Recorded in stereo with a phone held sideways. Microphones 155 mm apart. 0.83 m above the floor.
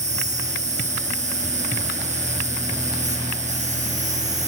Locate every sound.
0.0 s an insect: 50° right (ahead or behind), 1.5 m